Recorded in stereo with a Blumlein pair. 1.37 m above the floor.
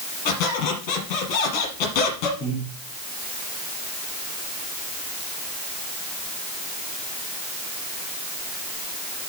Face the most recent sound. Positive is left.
turn(degrees=30)